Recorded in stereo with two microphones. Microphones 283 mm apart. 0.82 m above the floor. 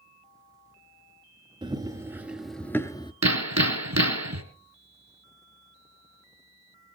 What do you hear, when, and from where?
1.6 s running footsteps: 15° right (ahead or behind), 1.2 m; by 3.1 s 15° left (ahead or behind), 0.8 m
3.2 s hammering: 70° right (ahead or behind), 1.6 m